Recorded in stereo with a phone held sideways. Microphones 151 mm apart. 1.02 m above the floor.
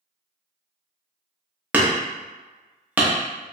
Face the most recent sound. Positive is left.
turn(degrees=-10)  # may be behind; listen again after turning